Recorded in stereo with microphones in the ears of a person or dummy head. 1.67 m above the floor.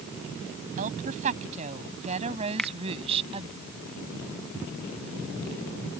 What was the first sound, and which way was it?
A woman speaking, 40° right (ahead or behind).